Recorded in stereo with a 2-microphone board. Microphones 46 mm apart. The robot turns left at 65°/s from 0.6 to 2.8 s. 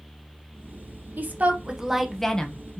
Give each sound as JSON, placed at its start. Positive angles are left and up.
{"t": 1.2, "sound": "a woman speaking", "azimuth_deg": -120, "distance_m": 0.6}